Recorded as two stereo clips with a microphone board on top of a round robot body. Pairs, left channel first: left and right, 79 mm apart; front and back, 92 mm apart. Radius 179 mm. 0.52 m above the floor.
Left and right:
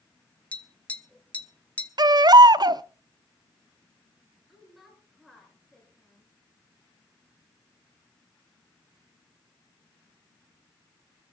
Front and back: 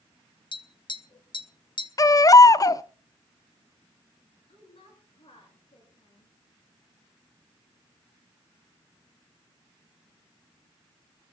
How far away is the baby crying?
About 0.5 m.